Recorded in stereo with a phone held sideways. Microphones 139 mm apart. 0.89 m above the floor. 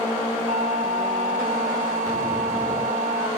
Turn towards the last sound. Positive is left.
turn(degrees=-75)  # may be behind; listen again after turning